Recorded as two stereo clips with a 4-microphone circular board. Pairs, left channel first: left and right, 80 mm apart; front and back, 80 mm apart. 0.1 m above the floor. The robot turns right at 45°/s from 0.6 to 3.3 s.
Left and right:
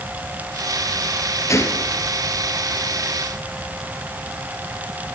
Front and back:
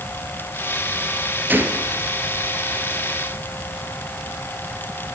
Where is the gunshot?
120° left, 2.5 m; by 2.1 s 150° left, 2.5 m.